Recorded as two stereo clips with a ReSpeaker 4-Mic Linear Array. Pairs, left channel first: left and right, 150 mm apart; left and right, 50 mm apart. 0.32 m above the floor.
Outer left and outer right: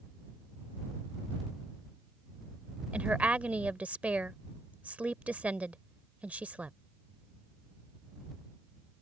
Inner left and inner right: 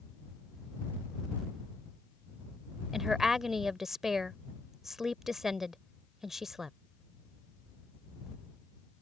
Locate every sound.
2.9 s a woman speaking: 10° right (ahead or behind)